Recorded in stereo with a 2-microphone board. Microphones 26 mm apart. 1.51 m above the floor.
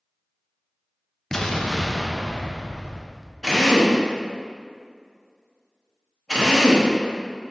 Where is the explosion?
25° left (ahead or behind), 0.7 m.